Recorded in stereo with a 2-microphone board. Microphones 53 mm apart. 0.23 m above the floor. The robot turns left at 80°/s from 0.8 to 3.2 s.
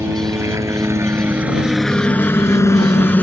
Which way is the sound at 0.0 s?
70° right (ahead or behind).